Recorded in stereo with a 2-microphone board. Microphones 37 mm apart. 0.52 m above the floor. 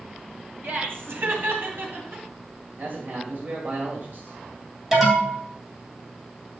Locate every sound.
0.6 s laughter: 70° right (ahead or behind), 3 m; by 2.2 s 75° right (ahead or behind), 3.5 m
2.8 s a man speaking: 55° right (ahead or behind), 2.5 m
4.9 s an alarm: 10° right (ahead or behind), 2.5 m